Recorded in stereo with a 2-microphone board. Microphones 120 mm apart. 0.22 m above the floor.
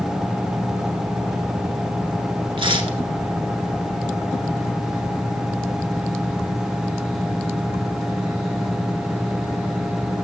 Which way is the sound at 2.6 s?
45° right (ahead or behind).